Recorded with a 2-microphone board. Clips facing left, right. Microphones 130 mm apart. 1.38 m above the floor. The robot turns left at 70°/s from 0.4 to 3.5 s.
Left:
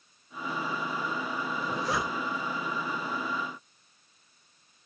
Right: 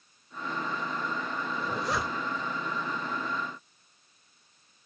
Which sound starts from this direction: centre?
A zipper, at 1.6 s.